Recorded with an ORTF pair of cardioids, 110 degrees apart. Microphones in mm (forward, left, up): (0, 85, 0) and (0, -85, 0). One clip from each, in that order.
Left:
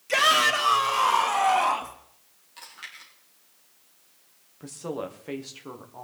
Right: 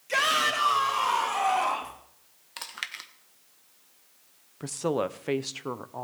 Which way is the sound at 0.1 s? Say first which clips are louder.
Left 4 dB; 20° left.